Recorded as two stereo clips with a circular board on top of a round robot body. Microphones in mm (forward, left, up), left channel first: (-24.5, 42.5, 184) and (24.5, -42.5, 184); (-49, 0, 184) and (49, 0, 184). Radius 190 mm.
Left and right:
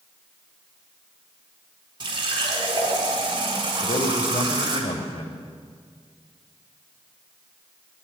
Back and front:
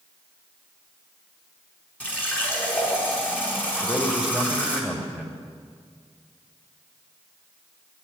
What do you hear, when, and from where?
2.0 s a running tap: 105° right, 4 m
3.8 s a man speaking: 95° left, 2.5 m